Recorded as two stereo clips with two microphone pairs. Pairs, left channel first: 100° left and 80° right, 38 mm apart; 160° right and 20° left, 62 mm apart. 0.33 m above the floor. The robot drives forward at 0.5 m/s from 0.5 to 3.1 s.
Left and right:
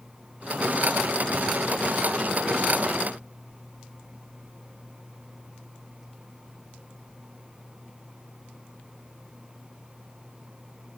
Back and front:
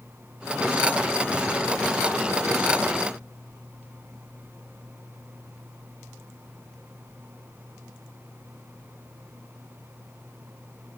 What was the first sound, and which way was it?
Only background noise.